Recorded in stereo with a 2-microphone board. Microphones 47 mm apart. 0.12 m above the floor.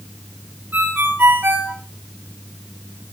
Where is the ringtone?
45° right (ahead or behind), 7 m.